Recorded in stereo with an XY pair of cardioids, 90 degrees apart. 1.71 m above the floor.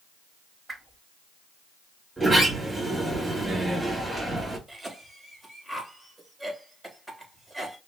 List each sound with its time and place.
0.7 s a whoosh: 25° right, 1.4 m
2.2 s a sliding door: 25° right, 3.5 m
4.7 s a cough: 20° right, 3.5 m